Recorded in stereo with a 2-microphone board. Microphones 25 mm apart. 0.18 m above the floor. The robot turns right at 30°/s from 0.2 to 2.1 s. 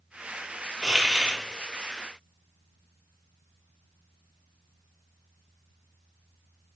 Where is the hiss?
30° right (ahead or behind), 0.6 m; by 1.4 s 40° right (ahead or behind), 0.6 m.